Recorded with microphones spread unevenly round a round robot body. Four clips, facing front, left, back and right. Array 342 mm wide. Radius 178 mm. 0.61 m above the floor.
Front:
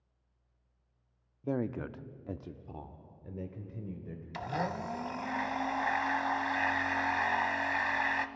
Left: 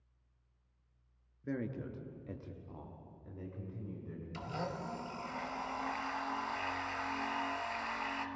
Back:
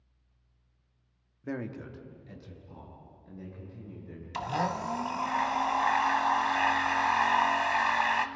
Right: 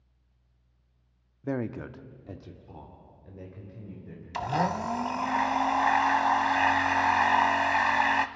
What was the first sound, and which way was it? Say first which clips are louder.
A man speaking: right 7 dB, front 3 dB; 80° right.